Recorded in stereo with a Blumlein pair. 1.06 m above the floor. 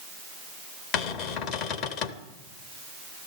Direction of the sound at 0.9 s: 40° left.